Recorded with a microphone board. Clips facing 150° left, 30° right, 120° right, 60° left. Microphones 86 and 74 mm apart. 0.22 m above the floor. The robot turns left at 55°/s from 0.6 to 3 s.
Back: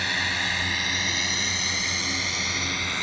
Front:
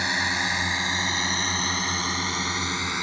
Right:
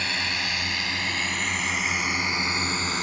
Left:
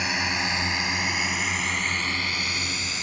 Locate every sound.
0.0 s a drone: 10° left; by 3.0 s 95° right